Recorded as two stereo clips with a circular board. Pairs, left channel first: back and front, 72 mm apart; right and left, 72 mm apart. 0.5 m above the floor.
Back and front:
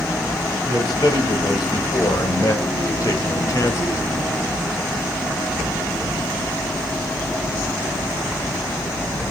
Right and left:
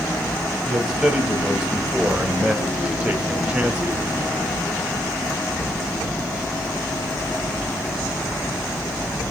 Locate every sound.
0.7 s a man speaking: 175° left, 3.5 m; by 4.0 s 150° left, 1.4 m